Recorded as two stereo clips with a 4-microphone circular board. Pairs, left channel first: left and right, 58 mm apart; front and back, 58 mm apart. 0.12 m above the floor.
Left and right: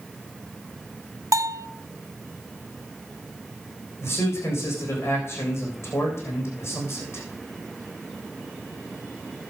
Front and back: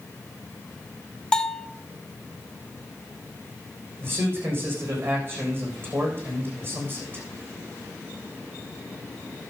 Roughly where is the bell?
Right.